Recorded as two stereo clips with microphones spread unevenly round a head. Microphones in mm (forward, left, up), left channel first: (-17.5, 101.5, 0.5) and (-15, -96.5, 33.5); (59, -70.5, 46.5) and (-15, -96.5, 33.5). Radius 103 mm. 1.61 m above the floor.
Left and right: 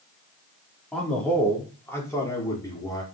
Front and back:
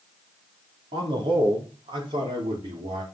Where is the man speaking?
Straight behind, 4.5 m; by 3.0 s 165° left, 5.5 m.